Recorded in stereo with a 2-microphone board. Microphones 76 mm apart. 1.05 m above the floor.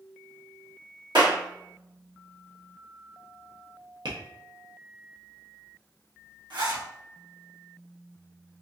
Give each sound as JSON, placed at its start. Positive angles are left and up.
{"t": 1.1, "sound": "a clap", "side_deg": -85, "distance_m": 1.7}
{"t": 4.0, "sound": "tapping", "side_deg": -70, "distance_m": 0.9}
{"t": 6.5, "sound": "a zipper", "side_deg": -75, "distance_m": 1.2}